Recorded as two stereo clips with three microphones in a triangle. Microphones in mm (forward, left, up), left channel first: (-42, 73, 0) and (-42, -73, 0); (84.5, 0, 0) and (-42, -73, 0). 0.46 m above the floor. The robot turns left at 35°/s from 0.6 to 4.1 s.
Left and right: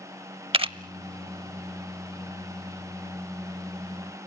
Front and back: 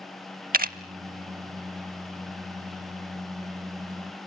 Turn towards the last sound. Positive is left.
turn(degrees=95)